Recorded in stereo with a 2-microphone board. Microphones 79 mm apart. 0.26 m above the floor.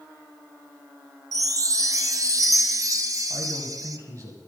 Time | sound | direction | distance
1.3 | a chime | 50° right (ahead or behind) | 0.6 m
3.3 | a man speaking | 45° right (ahead or behind) | 1.9 m